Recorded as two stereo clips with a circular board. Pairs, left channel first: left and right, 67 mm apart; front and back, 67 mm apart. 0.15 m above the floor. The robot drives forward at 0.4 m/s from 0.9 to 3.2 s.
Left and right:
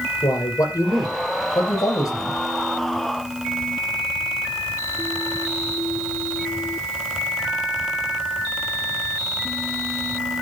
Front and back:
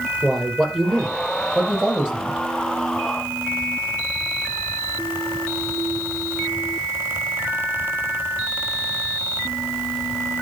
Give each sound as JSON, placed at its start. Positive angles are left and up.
{"t": 0.2, "sound": "a man speaking", "azimuth_deg": 95, "distance_m": 4.0}